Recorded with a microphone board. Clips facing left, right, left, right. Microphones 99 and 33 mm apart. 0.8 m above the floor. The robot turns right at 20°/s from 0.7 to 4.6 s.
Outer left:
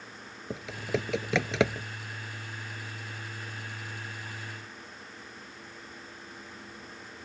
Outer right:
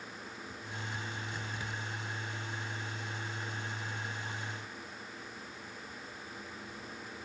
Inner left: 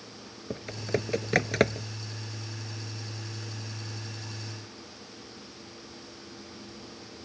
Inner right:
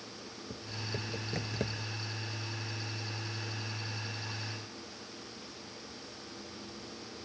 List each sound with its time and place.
0.5 s typing on a keyboard: 85° left; by 1.9 s 70° left (ahead or behind)